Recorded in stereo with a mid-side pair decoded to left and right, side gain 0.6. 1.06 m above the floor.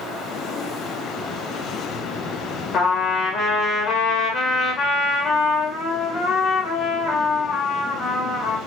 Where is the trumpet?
50° left, 1.3 m.